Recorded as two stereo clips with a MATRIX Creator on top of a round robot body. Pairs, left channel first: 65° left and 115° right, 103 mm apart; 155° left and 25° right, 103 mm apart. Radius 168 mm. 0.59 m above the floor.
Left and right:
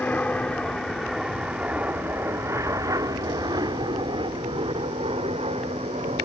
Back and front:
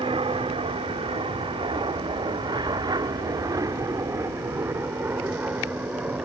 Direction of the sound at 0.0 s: 5° right.